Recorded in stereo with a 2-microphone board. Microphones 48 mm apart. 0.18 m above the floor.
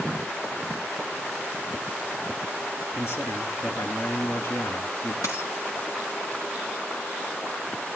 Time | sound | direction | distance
2.9 | a man speaking | 65° left (ahead or behind) | 2 m
5.2 | a dropped coin | 80° left | 3.5 m